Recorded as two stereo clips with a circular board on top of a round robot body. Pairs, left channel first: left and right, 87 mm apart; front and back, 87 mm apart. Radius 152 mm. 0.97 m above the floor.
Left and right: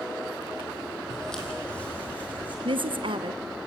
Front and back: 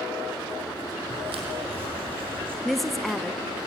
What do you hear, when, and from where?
1.1 s footsteps: 175° left, 2.5 m; by 2.5 s 160° left, 4.5 m
2.6 s a woman speaking: 90° right, 1.3 m